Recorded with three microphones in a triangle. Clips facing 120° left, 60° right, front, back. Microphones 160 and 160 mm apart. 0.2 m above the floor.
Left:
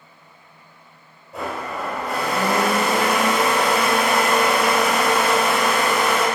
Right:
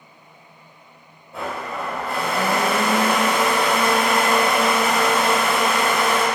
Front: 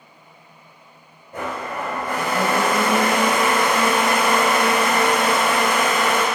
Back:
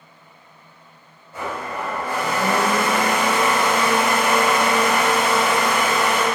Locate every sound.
1.3 s a blender: 30° left, 1.7 m